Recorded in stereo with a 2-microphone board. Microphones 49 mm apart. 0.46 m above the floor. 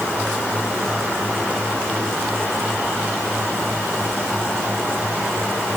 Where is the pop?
No pop in this recording.